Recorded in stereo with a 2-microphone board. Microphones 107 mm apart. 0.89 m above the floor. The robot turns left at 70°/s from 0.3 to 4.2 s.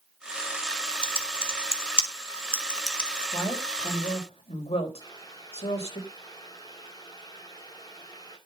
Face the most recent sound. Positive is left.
turn(degrees=40)  # may be behind; listen again after turning